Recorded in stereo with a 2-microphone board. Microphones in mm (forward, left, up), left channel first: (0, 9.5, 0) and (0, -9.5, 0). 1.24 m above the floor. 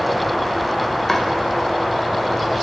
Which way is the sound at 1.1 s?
10° left (ahead or behind).